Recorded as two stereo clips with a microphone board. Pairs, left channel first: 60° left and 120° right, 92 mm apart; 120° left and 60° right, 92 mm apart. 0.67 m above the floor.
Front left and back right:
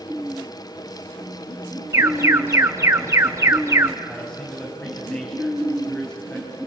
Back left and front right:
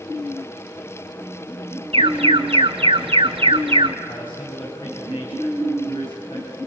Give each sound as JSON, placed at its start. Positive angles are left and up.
{"t": 1.9, "sound": "an alarm", "azimuth_deg": -60, "distance_m": 1.4}
{"t": 4.1, "sound": "a man speaking", "azimuth_deg": 140, "distance_m": 5.5}